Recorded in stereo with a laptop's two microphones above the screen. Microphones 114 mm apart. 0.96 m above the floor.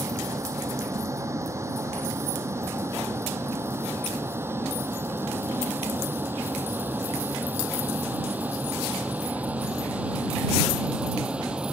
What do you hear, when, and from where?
0.0 s a vehicle: 25° right (ahead or behind); by 11.7 s 10° right (ahead or behind)